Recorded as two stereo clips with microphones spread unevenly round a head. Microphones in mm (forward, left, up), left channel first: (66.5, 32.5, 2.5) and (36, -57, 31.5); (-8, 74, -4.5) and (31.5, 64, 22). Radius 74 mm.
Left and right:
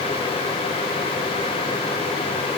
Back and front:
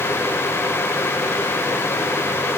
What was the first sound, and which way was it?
Only background noise.